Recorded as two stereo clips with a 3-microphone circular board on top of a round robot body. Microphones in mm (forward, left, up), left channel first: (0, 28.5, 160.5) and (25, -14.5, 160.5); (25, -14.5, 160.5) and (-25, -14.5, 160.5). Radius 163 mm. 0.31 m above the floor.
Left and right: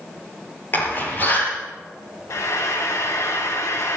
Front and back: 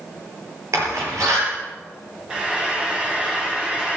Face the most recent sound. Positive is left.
turn(degrees=110)